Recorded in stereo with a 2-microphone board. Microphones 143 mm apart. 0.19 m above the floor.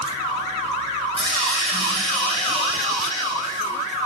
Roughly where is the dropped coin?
Left.